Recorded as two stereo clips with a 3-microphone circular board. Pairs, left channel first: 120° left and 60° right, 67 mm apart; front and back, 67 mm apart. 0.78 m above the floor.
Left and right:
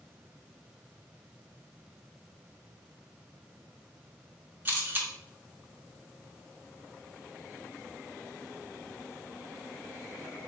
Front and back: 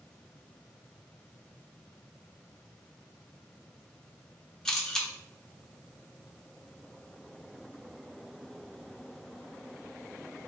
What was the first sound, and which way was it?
A camera shutter, 70° right.